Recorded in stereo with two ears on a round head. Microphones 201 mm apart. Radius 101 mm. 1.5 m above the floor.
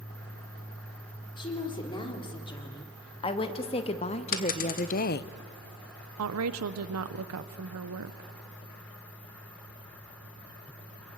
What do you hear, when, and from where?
1.4 s a woman speaking: 20° left (ahead or behind), 4.5 m; by 5.3 s 50° left (ahead or behind), 0.5 m
4.3 s a dropped coin: 40° left (ahead or behind), 1.6 m
6.2 s a woman speaking: 70° right (ahead or behind), 0.8 m